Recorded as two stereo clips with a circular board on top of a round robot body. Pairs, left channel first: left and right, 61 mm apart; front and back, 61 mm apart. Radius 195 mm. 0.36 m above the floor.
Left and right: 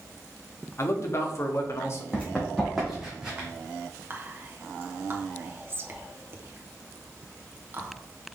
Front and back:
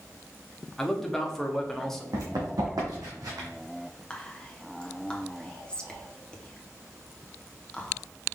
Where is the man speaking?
80° left, 1.2 m.